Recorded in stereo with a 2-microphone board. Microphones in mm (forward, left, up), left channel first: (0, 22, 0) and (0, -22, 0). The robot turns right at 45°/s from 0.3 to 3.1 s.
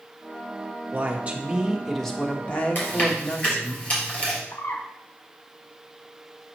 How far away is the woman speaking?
About 1.2 m.